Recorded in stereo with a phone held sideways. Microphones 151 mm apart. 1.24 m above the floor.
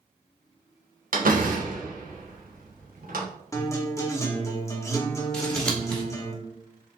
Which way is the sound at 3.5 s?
20° left (ahead or behind).